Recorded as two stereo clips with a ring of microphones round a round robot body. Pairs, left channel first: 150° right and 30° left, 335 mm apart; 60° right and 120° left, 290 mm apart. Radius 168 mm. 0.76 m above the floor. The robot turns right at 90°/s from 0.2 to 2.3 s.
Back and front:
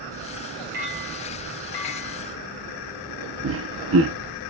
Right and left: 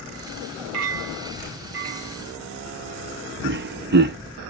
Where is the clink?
95° left, 0.8 m; by 2.2 s 135° right, 0.8 m.